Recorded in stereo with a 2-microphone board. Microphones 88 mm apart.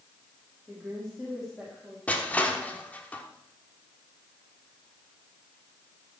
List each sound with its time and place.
0.7 s a woman speaking: centre (ahead or behind), 3.5 m; by 2.0 s 5° left (ahead or behind), 3 m
2.1 s crushing: 15° left (ahead or behind), 1.3 m